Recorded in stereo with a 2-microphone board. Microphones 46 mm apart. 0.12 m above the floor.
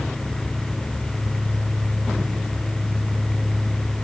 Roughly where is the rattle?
No rattle in this recording.